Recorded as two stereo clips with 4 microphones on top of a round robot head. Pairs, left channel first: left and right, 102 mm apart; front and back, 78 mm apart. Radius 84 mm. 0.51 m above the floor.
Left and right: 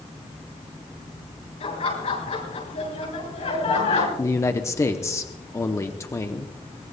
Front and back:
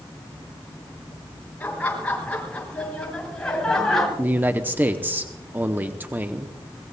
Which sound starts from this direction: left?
Laughter, at 1.6 s.